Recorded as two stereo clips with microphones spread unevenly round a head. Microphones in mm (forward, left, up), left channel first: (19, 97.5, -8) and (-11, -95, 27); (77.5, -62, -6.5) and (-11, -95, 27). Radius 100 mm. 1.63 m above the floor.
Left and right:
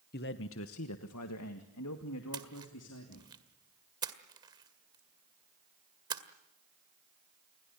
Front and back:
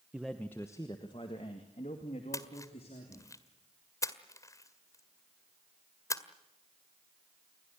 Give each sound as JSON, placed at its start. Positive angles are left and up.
{"t": 0.1, "sound": "a man speaking", "azimuth_deg": 125, "distance_m": 0.9}
{"t": 2.3, "sound": "a splash", "azimuth_deg": -45, "distance_m": 1.8}